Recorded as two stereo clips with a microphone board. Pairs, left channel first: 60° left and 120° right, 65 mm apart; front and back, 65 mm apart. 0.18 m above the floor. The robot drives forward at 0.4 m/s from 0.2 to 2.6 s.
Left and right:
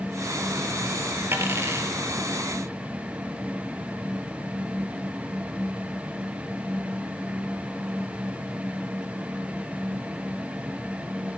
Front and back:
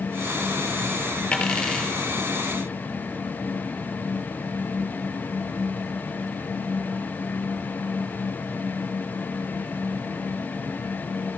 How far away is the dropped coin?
About 1.8 m.